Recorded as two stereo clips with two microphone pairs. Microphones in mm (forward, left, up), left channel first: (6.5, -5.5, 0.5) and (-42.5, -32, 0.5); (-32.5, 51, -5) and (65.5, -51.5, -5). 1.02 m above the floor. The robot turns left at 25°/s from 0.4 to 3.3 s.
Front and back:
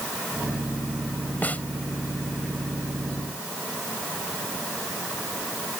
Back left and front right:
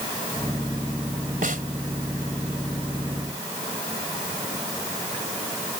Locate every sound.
1.4 s a snare drum: 30° right; by 1.6 s 35° right